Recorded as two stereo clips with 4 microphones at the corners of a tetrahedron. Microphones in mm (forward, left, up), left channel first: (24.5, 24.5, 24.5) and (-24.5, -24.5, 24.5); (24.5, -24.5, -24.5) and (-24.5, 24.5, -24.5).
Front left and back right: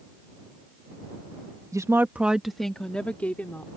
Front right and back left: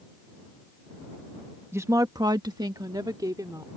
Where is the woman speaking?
170° right; by 3.7 s 110° left.